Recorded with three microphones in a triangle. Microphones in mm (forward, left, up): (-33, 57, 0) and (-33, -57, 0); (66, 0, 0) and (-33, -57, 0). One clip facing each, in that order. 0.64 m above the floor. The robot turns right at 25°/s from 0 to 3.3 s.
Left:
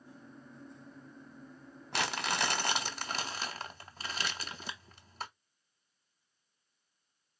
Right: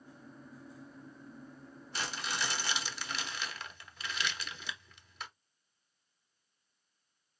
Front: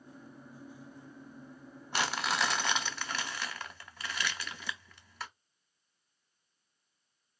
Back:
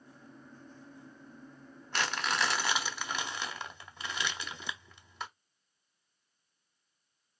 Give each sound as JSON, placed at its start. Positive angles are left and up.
{"t": 1.9, "sound": "crumpling", "azimuth_deg": 105, "distance_m": 1.0}